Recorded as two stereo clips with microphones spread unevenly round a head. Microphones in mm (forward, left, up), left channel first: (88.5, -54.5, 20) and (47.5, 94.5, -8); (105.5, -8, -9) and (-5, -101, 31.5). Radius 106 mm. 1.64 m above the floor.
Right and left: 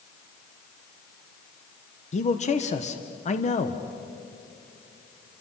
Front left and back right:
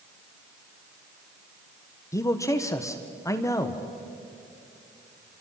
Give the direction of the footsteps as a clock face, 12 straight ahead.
No footsteps in this recording.